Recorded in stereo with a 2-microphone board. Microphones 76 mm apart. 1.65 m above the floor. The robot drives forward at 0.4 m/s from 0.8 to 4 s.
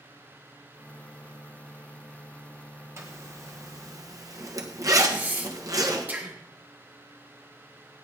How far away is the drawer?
I don't hear a drawer.